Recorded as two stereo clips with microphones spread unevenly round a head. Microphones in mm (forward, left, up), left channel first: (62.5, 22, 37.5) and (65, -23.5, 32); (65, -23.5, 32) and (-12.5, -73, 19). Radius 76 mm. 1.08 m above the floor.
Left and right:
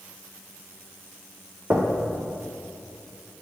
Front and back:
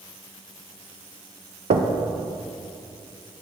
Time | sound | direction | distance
1.7 | knocking | 150° right | 0.6 m